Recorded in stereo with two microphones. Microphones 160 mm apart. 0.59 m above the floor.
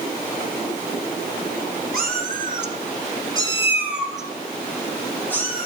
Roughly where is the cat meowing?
Right.